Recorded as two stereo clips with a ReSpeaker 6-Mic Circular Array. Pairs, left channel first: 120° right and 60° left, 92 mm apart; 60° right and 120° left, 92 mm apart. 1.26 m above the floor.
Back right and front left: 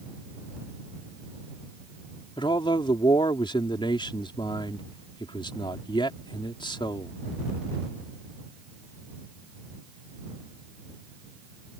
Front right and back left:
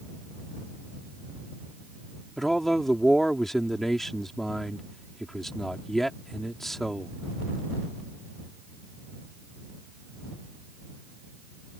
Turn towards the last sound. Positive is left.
turn(degrees=-150)